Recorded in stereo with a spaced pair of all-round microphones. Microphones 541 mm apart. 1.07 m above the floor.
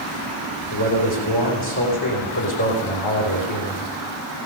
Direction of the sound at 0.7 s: 55° left (ahead or behind).